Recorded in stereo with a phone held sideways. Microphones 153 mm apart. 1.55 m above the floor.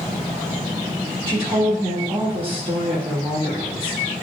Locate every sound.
1.3 s a woman speaking: 40° right (ahead or behind), 2.5 m